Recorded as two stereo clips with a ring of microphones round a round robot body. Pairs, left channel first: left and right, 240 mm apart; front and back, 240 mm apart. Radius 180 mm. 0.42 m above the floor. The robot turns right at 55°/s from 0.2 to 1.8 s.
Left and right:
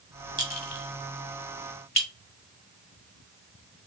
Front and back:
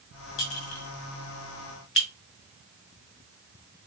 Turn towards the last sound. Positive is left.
turn(degrees=35)